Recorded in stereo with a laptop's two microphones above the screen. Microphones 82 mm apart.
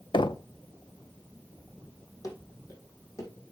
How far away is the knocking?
About 0.5 m.